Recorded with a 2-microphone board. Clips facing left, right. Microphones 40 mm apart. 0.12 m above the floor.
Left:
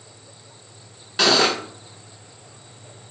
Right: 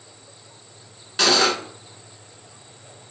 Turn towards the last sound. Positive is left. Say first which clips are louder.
# left 1 dB
turn(degrees=5)  # may be behind; listen again after turning